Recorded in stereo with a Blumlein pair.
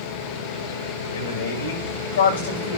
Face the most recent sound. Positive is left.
turn(degrees=65)